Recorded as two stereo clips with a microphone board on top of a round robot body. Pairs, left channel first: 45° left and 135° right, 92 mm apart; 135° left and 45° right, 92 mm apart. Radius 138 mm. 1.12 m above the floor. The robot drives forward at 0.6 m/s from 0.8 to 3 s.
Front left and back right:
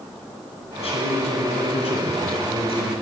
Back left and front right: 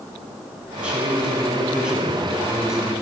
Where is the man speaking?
35° left, 9 m; by 2.9 s 40° left, 8 m.